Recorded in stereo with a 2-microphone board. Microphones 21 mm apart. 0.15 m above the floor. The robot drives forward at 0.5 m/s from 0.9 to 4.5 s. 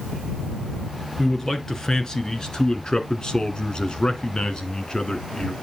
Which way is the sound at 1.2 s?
25° left (ahead or behind).